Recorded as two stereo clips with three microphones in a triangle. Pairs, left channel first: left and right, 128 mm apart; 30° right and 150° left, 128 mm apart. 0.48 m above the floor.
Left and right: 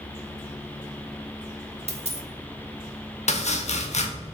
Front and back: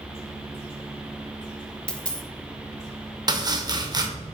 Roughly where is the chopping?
Left.